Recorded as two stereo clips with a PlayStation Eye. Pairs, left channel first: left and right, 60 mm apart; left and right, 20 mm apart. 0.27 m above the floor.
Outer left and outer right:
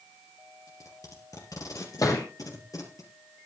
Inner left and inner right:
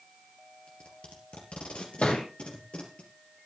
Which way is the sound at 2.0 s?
85° left.